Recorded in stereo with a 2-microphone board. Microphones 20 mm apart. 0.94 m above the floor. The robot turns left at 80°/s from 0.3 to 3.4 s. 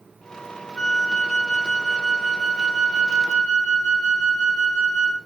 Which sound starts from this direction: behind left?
A flute, at 0.8 s.